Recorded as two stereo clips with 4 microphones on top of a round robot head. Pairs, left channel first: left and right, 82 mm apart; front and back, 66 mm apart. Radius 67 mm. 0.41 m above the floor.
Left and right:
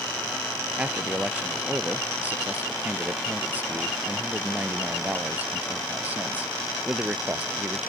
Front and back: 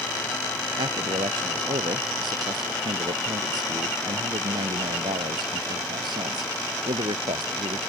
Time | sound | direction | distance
0.8 | a man speaking | 160° right | ?